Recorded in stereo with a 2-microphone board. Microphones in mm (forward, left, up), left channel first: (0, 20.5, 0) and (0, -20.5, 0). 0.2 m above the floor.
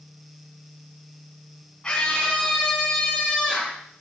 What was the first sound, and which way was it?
A scream, 25° left (ahead or behind).